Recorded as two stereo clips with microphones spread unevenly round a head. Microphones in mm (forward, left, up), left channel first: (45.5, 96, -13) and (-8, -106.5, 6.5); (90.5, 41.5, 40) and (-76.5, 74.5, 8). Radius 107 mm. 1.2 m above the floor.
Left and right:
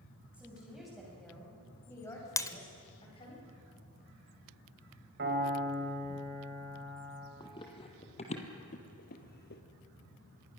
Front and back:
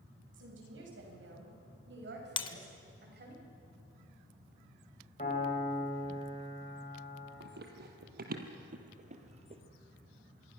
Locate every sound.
0.3 s a woman speaking: 170° left, 7 m; by 3.4 s 140° left, 6 m
2.4 s breaking glass: straight ahead, 1.0 m
5.2 s a piano: 70° right, 4.5 m
7.4 s running footsteps: 145° left, 2.5 m; by 9.6 s 110° left, 1.9 m